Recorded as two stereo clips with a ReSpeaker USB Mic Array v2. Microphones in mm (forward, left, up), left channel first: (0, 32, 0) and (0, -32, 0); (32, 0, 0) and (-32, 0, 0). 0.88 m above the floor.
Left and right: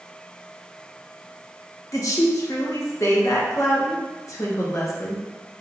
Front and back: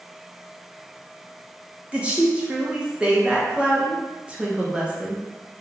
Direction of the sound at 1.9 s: 110° left.